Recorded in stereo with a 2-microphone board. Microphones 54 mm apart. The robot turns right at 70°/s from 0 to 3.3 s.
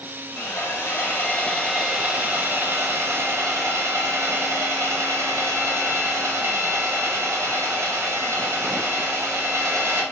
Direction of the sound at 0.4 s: 75° left.